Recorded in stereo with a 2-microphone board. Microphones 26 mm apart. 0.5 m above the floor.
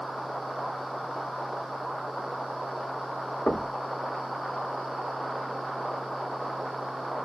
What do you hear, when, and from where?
3.5 s knocking: 50° left (ahead or behind), 1.0 m